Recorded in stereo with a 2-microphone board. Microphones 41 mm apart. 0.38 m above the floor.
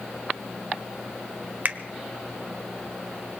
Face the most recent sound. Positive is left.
turn(degrees=-45)  # may be behind; listen again after turning